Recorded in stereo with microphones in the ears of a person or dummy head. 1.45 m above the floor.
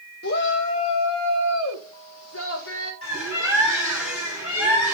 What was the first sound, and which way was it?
A shout, 50° left (ahead or behind).